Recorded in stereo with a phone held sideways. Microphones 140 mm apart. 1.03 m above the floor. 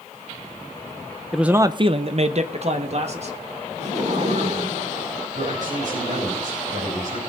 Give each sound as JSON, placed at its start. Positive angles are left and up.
{"t": 1.3, "sound": "a man speaking", "side_deg": 0, "distance_m": 0.6}
{"t": 3.8, "sound": "laughter", "side_deg": -55, "distance_m": 7.0}
{"t": 5.3, "sound": "a man speaking", "side_deg": -55, "distance_m": 4.5}